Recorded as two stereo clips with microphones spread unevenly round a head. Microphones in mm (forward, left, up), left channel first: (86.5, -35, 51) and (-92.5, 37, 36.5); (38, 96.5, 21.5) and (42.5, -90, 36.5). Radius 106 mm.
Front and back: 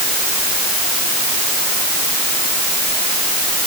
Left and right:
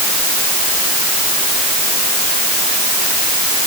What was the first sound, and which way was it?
Only background noise.